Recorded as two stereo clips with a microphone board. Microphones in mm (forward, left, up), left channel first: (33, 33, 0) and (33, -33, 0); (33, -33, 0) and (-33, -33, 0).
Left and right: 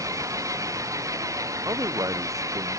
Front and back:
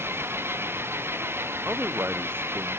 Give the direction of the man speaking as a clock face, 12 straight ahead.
4 o'clock.